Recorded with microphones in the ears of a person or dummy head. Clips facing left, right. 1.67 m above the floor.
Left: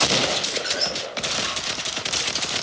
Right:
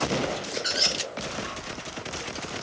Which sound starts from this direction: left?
A squeak, at 0.6 s.